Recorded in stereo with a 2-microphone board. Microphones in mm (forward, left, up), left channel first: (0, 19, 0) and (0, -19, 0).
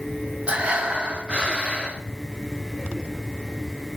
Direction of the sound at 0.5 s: 30° right (ahead or behind).